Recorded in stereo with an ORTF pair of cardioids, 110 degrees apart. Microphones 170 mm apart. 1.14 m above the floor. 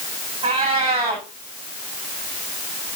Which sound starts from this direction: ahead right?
A cat meowing, at 0.4 s.